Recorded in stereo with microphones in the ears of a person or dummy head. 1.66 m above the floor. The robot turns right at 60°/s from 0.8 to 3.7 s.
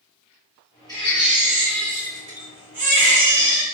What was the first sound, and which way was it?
A baby crying, 5° left (ahead or behind).